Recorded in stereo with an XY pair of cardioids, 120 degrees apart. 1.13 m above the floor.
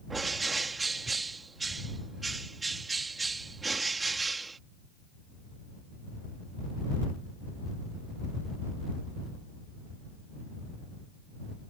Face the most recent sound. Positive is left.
turn(degrees=-20)